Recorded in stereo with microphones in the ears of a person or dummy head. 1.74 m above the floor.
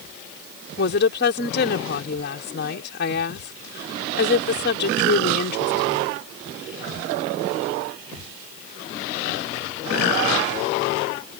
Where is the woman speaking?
55° left (ahead or behind).